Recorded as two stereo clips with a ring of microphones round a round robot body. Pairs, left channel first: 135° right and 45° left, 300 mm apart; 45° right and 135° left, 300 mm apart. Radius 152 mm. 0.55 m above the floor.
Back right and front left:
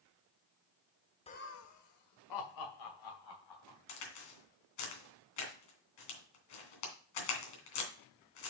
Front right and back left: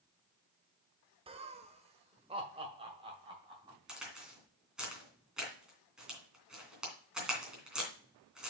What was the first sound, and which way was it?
Laughter, straight behind.